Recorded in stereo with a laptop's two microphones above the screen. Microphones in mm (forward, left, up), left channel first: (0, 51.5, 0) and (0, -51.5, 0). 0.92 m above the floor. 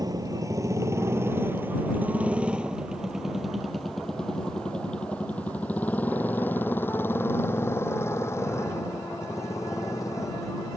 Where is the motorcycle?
40° right (ahead or behind); by 10.8 s 35° left (ahead or behind).